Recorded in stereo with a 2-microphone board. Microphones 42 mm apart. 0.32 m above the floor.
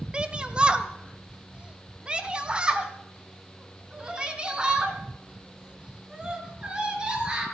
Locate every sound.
0.1 s a shout: 25° right (ahead or behind), 1.2 m; by 7.5 s 20° right (ahead or behind), 5 m